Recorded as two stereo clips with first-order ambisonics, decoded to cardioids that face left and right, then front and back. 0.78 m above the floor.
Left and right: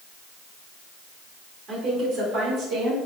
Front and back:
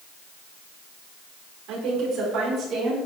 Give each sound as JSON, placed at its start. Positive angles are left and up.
{"t": 1.7, "sound": "a woman speaking", "azimuth_deg": -145, "distance_m": 2.5}